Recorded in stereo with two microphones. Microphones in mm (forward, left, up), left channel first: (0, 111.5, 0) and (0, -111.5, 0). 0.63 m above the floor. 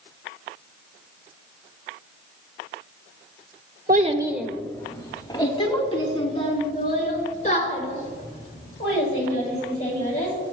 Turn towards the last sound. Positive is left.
turn(degrees=35)  # may be behind; listen again after turning